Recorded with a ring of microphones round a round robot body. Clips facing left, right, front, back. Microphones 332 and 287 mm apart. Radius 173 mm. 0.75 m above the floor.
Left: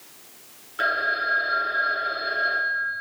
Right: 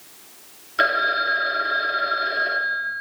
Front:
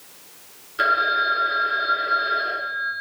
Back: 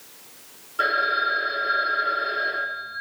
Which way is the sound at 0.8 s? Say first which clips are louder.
Right 5 dB, front 1 dB; 65° right.